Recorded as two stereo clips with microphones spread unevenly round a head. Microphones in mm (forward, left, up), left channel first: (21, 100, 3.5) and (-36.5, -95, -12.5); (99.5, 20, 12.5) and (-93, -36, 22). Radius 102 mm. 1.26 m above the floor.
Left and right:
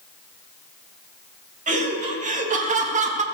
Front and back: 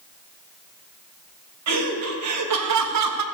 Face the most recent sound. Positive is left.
turn(degrees=-165)